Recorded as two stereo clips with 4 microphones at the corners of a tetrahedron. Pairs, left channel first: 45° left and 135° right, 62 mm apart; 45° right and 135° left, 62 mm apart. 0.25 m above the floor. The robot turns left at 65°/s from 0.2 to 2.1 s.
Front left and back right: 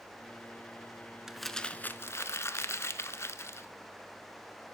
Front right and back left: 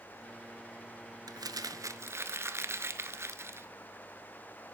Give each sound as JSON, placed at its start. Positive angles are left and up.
{"t": 1.3, "sound": "crumpling", "azimuth_deg": 145, "distance_m": 0.8}